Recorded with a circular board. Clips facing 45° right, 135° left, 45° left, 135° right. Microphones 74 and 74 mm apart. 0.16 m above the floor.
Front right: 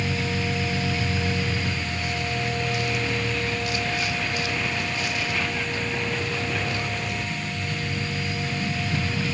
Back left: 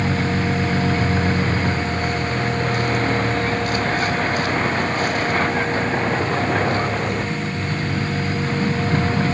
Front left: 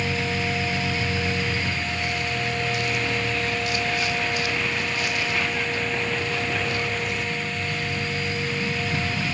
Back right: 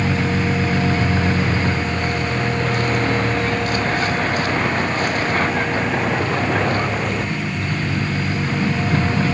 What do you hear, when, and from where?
0.0 s a vehicle: straight behind